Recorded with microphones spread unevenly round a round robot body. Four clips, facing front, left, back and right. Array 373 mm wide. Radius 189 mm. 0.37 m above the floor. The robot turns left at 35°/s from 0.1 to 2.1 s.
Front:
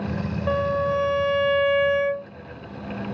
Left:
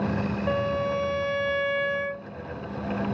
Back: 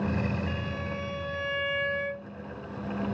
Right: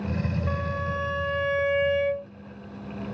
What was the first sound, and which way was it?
A violin, 25° left.